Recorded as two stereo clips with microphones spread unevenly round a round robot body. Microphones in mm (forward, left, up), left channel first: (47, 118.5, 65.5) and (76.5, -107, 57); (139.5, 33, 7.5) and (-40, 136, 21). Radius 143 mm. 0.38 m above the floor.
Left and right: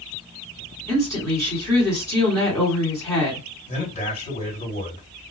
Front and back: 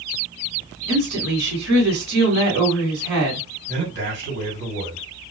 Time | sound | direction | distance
0.9 | a woman speaking | 170° left | 1.9 m
3.7 | a man speaking | 155° left | 2 m